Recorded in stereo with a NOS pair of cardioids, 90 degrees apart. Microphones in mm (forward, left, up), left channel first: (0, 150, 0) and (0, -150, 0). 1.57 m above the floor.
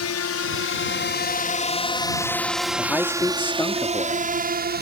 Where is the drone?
55° left; by 4.8 s 35° right.